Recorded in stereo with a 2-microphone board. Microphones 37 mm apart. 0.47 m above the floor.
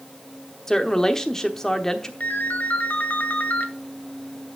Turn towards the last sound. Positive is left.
turn(degrees=55)  # may be behind; listen again after turning